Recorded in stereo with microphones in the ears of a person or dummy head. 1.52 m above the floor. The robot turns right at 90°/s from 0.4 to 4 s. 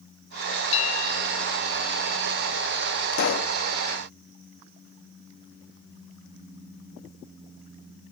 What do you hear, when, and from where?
0.7 s a bell: 35° left; by 1.6 s 110° left
3.1 s a pop: 100° left; by 3.6 s 140° left